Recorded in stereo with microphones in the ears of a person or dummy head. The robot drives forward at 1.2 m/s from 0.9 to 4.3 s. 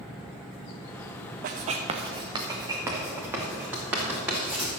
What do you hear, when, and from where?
1.4 s writing: 40° right (ahead or behind), 0.8 m; by 4.7 s 10° right (ahead or behind), 3.5 m